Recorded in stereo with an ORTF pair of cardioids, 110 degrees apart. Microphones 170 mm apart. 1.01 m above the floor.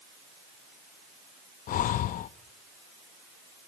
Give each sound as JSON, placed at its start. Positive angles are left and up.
{"t": 1.7, "sound": "breathing", "azimuth_deg": 55, "distance_m": 0.7}